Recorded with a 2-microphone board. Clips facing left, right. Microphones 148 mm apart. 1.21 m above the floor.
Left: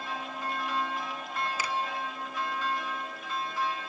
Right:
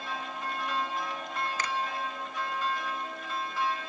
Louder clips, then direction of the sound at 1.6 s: Even; 10° left (ahead or behind).